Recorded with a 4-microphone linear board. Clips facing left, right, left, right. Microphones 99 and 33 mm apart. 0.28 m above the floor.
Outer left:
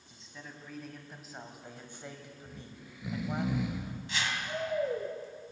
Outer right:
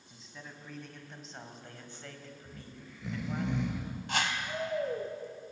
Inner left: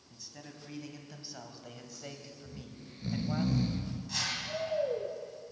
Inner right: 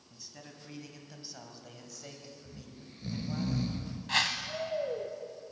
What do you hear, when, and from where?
0.1 s a man speaking: centre (ahead or behind), 2.5 m; by 3.5 s 30° left (ahead or behind), 1.7 m
2.5 s snoring: 5° left (ahead or behind), 1.5 m
4.1 s a whoosh: 55° right (ahead or behind), 1.5 m